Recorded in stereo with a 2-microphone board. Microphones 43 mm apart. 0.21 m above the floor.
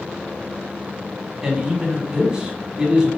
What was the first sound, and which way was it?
A man speaking, 15° right (ahead or behind).